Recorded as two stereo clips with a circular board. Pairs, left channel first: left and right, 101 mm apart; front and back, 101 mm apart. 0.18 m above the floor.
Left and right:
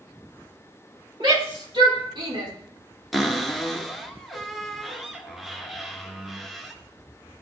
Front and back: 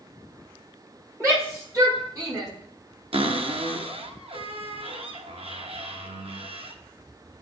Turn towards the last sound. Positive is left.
turn(degrees=180)